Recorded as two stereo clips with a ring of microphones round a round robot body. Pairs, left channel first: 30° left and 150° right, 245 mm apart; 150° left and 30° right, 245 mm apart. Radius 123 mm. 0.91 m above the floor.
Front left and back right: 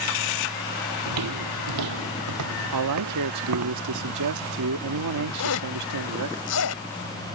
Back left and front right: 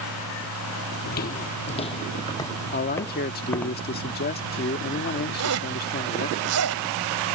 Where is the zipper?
Straight ahead.